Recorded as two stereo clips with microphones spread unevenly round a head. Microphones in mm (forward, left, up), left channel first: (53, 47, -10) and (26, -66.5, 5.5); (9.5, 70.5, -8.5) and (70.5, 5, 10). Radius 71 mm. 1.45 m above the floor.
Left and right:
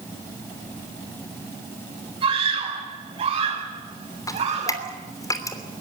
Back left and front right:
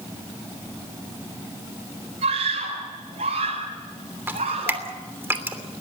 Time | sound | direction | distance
2.2 | a scream | 55° right | 7.5 m
4.3 | dripping | 15° left | 3 m